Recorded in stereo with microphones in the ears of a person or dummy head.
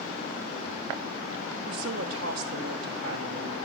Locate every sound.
1.7 s a woman speaking: 70° right (ahead or behind), 2 m